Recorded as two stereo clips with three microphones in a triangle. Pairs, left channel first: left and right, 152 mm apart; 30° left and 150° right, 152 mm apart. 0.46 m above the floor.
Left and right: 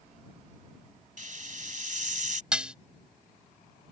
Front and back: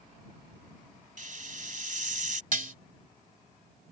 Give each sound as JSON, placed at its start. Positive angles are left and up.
{"t": 1.2, "sound": "a hiss", "azimuth_deg": -120}
{"t": 2.5, "sound": "dishes clattering", "azimuth_deg": -175}